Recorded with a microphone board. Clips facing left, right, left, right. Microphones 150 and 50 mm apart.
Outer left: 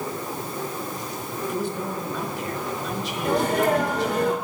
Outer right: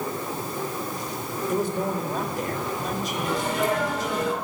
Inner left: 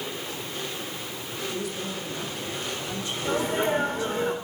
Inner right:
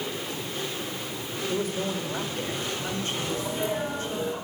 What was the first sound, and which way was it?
A man speaking, 45° right (ahead or behind).